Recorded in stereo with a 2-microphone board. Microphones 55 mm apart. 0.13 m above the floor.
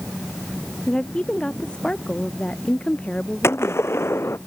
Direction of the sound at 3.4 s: 50° left (ahead or behind).